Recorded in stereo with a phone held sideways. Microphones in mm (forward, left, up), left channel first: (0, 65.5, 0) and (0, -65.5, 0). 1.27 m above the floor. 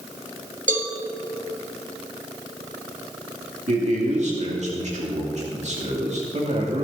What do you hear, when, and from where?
0.7 s a cowbell: 75° right (ahead or behind), 1.6 m
3.7 s a man speaking: 60° right (ahead or behind), 2.5 m